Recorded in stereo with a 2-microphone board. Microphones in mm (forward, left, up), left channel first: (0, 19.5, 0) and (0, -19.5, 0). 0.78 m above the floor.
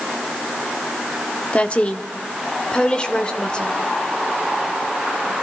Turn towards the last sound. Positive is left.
turn(degrees=25)  # may be behind; listen again after turning